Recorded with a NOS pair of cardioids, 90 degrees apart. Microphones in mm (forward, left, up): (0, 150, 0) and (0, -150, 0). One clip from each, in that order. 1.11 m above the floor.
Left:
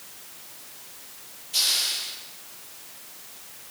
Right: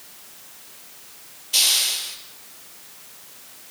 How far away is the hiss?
About 7.5 m.